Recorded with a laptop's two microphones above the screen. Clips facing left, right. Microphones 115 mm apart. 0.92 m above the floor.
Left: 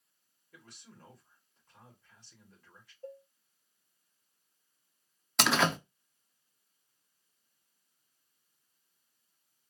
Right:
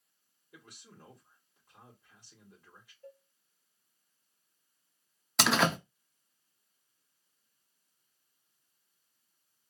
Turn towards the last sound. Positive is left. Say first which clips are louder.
# right 1 dB
turn(degrees=0)  # may be behind; listen again after turning